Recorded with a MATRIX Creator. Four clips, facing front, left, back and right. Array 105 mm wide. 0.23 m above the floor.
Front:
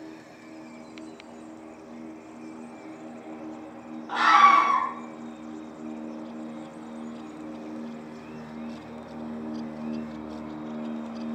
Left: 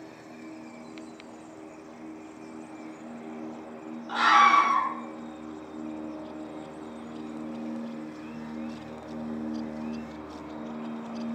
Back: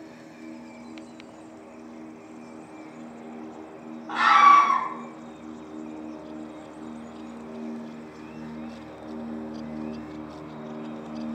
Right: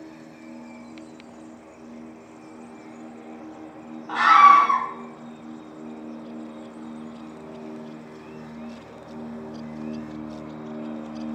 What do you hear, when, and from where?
4.1 s a scream: 105° right, 1.9 m